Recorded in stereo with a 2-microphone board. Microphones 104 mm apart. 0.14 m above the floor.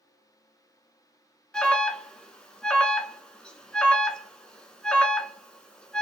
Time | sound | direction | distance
1.5 | an alarm | 10° left (ahead or behind) | 0.9 m